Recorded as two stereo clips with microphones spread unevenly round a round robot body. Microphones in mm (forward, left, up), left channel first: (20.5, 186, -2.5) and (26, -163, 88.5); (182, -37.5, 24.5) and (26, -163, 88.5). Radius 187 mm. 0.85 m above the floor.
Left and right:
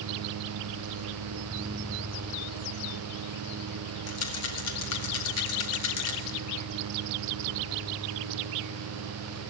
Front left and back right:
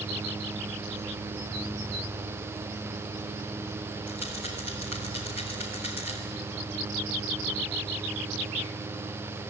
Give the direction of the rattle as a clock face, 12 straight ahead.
8 o'clock.